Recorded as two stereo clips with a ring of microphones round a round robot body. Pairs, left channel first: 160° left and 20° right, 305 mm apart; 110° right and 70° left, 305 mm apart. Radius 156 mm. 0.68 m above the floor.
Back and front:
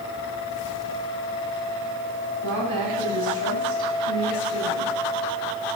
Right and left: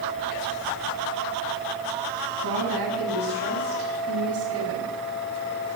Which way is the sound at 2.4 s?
25° left.